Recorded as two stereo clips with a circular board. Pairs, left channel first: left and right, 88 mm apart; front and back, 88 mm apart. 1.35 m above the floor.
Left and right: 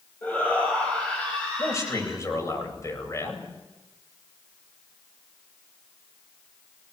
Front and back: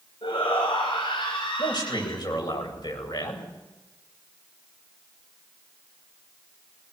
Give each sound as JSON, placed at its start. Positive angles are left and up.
{"t": 0.2, "sound": "a shout", "azimuth_deg": 15, "distance_m": 6.5}
{"t": 1.6, "sound": "a man speaking", "azimuth_deg": 35, "distance_m": 8.5}